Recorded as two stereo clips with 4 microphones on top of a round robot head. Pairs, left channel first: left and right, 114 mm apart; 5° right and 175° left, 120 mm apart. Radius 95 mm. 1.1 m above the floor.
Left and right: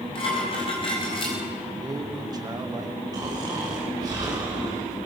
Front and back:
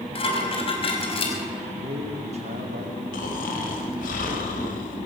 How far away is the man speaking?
About 2.5 m.